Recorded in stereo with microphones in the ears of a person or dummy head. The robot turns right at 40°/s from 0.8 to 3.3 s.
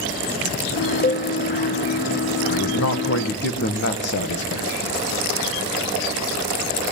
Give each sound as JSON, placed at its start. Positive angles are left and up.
{"t": 1.0, "sound": "a cowbell", "side_deg": 35, "distance_m": 0.9}
{"t": 2.5, "sound": "a man speaking", "azimuth_deg": 95, "distance_m": 2.0}